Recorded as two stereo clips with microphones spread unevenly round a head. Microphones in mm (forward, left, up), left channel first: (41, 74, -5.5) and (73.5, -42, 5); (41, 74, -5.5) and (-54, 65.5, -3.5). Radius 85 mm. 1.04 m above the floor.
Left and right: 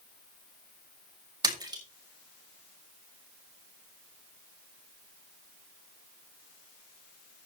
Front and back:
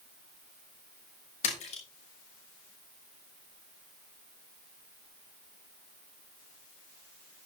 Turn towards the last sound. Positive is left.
turn(degrees=-20)